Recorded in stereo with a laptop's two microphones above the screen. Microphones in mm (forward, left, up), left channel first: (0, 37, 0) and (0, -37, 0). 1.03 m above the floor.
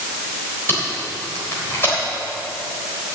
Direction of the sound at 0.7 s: 30° left (ahead or behind).